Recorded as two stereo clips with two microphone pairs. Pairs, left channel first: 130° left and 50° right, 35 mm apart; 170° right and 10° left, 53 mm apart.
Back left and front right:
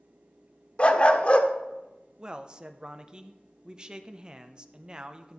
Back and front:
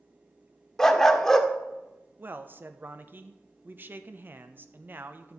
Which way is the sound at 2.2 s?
15° right.